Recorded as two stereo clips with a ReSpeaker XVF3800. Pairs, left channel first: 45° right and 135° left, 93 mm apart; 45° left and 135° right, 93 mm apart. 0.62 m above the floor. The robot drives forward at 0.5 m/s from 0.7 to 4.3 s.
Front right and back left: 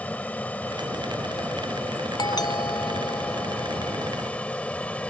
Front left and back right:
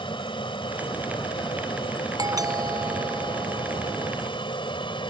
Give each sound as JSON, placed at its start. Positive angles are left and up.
{"t": 0.0, "sound": "an aircraft", "azimuth_deg": 30}
{"t": 2.2, "sound": "a doorbell", "azimuth_deg": -85}